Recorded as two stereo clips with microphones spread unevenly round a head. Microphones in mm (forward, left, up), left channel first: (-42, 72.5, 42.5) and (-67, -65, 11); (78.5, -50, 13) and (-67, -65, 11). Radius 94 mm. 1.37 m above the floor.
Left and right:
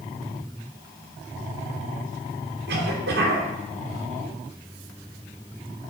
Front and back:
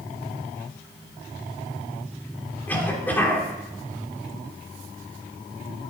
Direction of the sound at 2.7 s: 75° right.